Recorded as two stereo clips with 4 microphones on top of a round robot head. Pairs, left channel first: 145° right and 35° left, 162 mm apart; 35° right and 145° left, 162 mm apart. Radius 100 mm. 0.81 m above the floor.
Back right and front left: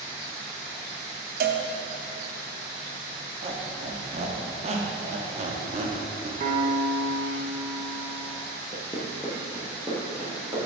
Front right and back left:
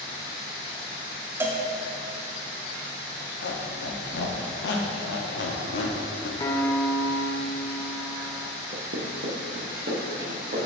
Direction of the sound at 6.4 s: 25° left.